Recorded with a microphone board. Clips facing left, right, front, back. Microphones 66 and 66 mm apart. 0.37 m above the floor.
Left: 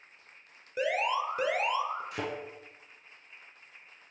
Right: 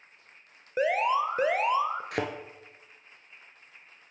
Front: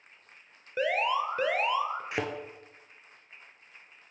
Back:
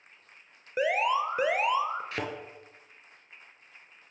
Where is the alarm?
110° right, 0.6 m.